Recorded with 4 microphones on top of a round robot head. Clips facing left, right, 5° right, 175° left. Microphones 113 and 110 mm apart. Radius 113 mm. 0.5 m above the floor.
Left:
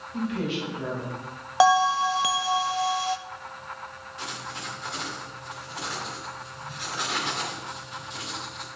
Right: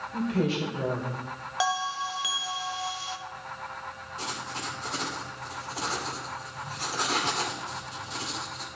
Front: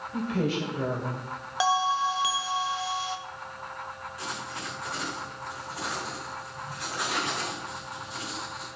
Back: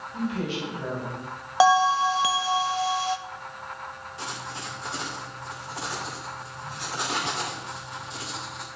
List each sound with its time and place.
0.1 s a woman speaking: 40° right, 3 m
1.6 s a bell: 130° left, 0.6 m
4.2 s writing: 130° right, 2 m